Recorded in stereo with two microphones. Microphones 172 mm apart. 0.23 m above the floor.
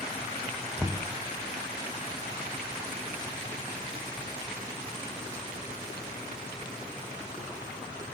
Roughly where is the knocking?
Centre.